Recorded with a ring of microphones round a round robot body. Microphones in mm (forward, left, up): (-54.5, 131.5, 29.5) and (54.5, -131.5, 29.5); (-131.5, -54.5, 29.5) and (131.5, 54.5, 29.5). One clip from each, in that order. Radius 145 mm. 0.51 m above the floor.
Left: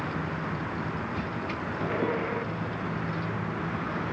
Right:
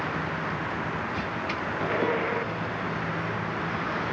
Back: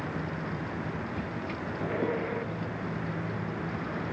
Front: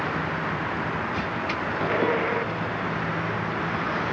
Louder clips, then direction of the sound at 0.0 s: Right 3 dB, front 9 dB; 15° right.